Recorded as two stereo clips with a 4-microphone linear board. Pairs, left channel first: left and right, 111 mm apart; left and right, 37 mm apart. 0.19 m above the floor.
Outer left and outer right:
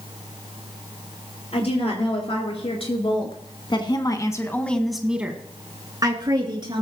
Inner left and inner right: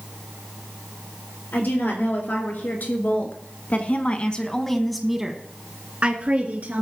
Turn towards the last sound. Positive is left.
turn(degrees=-45)  # may be behind; listen again after turning